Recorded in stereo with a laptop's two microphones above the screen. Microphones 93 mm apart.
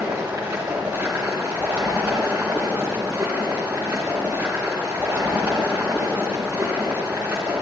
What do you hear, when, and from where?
0.0 s running water: 25° right (ahead or behind), 2.5 m